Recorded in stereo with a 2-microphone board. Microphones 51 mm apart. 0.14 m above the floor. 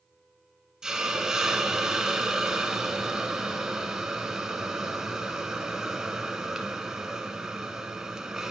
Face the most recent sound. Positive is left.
turn(degrees=-10)  # may be behind; listen again after turning